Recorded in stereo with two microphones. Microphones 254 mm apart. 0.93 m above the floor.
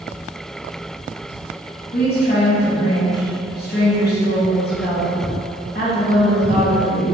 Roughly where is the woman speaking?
Left.